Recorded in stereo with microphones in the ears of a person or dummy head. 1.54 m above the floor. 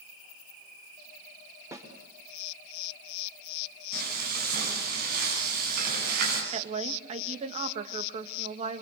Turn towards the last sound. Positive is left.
turn(degrees=-40)  # may be behind; listen again after turning